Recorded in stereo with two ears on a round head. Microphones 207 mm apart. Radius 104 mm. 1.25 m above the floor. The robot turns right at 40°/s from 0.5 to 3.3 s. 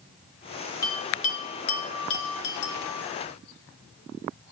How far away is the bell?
About 3 m.